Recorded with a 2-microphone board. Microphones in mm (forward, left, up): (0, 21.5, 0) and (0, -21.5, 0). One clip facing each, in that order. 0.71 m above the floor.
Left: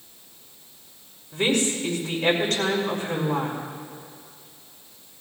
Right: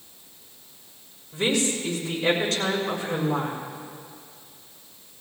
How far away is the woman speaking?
About 5 m.